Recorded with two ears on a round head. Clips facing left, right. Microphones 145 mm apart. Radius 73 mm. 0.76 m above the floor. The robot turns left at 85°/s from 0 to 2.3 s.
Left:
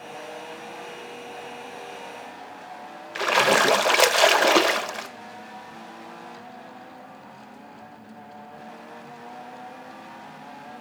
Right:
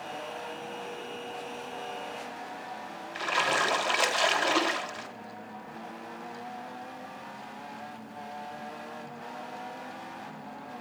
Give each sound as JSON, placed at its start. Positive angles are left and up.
{"t": 3.1, "sound": "a splash", "side_deg": 65, "distance_m": 1.0}